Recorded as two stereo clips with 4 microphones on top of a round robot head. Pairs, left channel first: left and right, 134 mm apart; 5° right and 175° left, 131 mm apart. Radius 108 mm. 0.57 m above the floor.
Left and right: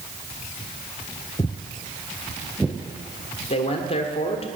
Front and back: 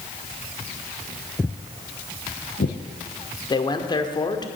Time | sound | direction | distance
1.4 | footsteps | 55° left | 0.5 m
3.5 | a man speaking | 45° left | 1.6 m